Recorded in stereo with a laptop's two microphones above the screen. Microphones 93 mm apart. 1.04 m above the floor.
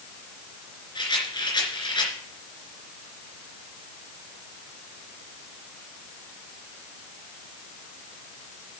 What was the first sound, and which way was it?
A rattle, 55° left (ahead or behind).